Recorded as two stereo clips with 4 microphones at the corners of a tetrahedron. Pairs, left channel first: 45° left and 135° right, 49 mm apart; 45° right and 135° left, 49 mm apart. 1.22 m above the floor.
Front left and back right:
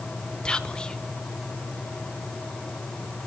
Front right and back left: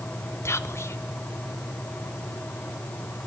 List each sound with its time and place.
0.5 s whispering: 30° right, 0.6 m